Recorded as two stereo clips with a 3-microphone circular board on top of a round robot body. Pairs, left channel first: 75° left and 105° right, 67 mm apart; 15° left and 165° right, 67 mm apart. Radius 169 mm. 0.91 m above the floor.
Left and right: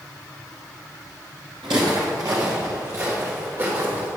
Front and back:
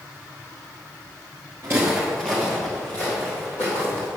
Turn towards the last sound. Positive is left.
turn(degrees=-40)